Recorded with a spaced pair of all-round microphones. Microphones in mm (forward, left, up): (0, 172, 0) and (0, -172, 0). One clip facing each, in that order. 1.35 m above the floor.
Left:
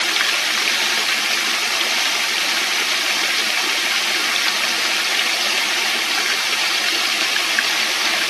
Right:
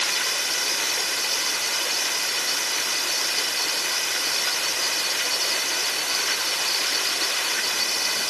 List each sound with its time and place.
0.0 s running water: 85° left